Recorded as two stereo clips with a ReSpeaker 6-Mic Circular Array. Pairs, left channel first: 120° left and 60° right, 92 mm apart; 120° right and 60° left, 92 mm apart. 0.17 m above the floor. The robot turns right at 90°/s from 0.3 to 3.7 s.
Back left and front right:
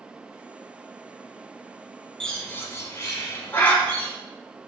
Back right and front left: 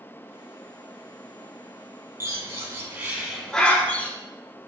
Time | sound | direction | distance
2.2 | a bird | 45° left | 0.8 m